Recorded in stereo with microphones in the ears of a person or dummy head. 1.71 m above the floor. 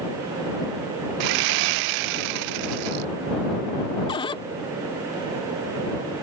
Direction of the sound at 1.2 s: 65° right (ahead or behind).